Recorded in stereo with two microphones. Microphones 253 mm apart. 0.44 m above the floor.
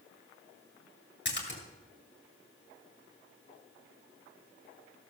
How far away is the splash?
About 2.5 m.